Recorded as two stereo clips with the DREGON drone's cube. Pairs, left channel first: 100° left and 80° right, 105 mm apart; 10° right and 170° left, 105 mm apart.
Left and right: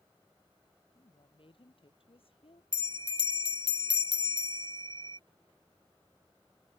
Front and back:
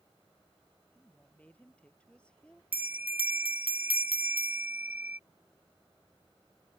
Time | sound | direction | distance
0.9 | a woman speaking | 65° left | ?
2.7 | a bell | 115° right | ?